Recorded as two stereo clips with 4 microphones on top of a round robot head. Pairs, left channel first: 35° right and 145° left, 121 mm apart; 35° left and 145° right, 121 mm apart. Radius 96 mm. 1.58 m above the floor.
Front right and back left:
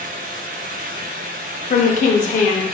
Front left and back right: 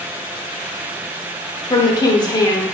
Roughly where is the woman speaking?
Ahead.